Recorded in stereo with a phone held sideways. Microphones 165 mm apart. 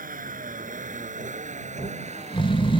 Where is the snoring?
30° left (ahead or behind).